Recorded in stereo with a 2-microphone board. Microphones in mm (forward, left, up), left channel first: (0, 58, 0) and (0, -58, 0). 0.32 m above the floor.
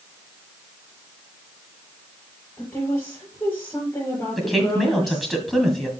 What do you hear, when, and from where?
2.6 s a woman speaking: 25° left (ahead or behind), 5 m
4.4 s a woman speaking: centre (ahead or behind), 1.8 m